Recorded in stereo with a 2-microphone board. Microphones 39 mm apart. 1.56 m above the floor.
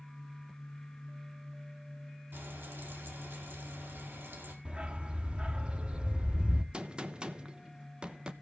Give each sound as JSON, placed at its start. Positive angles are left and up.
{"t": 2.3, "sound": "frying", "side_deg": -70, "distance_m": 4.0}
{"t": 4.7, "sound": "a dog barking", "side_deg": -25, "distance_m": 1.1}
{"t": 6.7, "sound": "a gunshot", "side_deg": -30, "distance_m": 1.1}